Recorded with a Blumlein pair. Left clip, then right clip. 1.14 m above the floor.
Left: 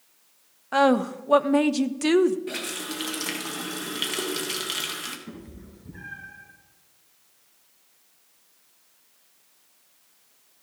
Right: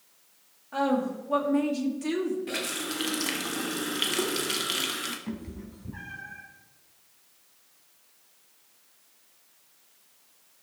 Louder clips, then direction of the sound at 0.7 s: Left 7 dB; 55° left.